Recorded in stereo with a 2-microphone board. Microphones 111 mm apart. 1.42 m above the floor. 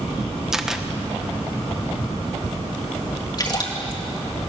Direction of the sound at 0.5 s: 5° right (ahead or behind).